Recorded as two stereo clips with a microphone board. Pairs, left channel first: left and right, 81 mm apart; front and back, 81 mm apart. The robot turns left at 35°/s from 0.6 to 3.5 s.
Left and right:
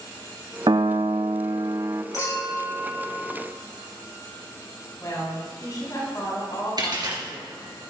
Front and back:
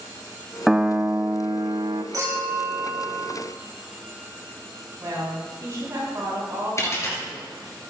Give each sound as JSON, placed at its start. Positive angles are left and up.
{"t": 0.7, "sound": "a piano", "azimuth_deg": -95, "distance_m": 0.5}
{"t": 2.1, "sound": "a clink", "azimuth_deg": 135, "distance_m": 3.5}
{"t": 5.0, "sound": "a woman speaking", "azimuth_deg": 130, "distance_m": 4.0}
{"t": 6.8, "sound": "a dropped coin", "azimuth_deg": -55, "distance_m": 2.5}